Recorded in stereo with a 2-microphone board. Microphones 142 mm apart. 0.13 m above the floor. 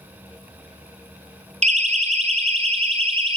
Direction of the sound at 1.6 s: 55° right (ahead or behind).